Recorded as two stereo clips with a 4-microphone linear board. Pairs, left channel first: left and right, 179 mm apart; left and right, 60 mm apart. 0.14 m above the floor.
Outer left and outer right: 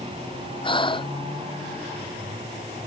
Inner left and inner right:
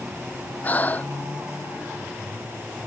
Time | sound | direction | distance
0.6 | breathing | 30° left (ahead or behind) | ?